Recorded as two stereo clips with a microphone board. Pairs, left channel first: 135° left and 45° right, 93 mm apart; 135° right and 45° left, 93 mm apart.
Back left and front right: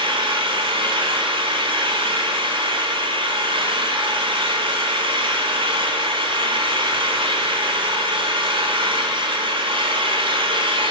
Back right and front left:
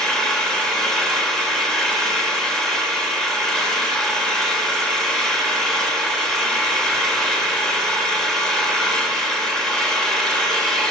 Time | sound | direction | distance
0.0 | an engine running | 50° right | 1.3 m